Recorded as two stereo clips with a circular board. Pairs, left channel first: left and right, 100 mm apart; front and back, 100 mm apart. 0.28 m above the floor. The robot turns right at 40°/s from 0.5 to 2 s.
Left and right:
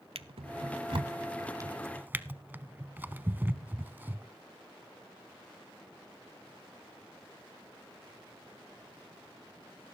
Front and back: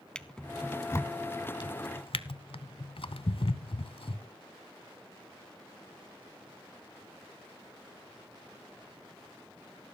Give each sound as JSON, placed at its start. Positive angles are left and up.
{"t": 0.1, "sound": "a drawer", "azimuth_deg": -80, "distance_m": 0.6}